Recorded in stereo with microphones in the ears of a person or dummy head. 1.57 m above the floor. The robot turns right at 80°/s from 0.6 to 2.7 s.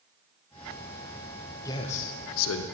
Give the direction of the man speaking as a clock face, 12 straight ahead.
11 o'clock.